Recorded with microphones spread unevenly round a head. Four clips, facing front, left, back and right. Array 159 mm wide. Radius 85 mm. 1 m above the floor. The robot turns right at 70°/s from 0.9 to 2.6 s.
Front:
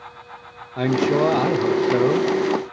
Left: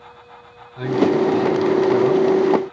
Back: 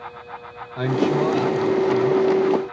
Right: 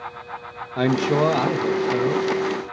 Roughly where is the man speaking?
Right.